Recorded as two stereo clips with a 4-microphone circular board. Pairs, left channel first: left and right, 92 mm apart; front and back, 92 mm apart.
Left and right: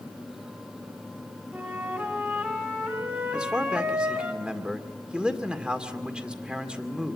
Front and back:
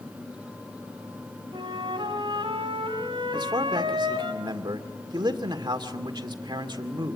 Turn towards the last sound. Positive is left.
turn(degrees=-165)